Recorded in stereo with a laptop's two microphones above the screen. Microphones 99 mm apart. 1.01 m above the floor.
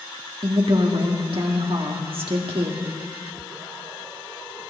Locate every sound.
0.4 s a woman speaking: 65° right (ahead or behind), 1.6 m